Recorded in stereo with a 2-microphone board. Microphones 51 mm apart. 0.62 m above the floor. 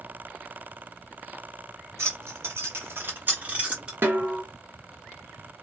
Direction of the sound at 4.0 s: 45° right (ahead or behind).